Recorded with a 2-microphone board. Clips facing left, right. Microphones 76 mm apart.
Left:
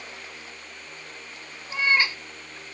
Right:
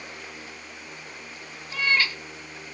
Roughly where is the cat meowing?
Left.